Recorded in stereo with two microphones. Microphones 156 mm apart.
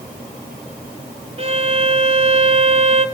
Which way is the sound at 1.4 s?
40° right (ahead or behind).